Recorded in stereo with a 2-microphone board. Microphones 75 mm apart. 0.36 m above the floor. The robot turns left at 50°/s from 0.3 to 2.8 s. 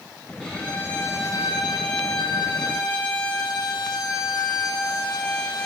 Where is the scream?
No scream in this recording.